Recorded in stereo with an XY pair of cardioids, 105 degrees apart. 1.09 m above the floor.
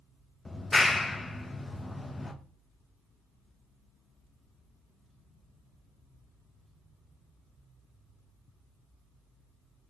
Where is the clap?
15° left, 0.6 m.